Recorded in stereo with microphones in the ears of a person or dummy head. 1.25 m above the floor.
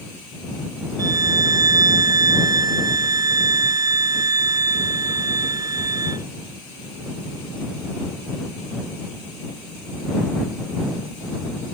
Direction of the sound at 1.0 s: 20° right (ahead or behind).